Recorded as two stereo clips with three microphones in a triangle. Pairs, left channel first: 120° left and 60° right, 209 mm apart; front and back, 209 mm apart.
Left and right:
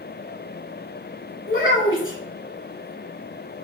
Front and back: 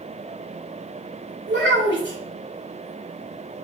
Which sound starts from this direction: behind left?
A child speaking, at 1.5 s.